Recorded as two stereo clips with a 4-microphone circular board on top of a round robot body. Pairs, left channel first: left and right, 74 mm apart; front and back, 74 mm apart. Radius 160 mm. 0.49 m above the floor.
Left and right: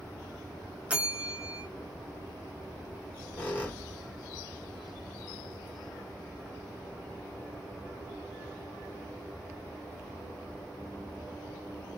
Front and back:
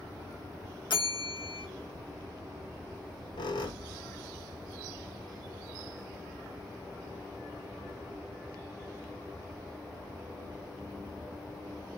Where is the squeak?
20° left, 1.0 m.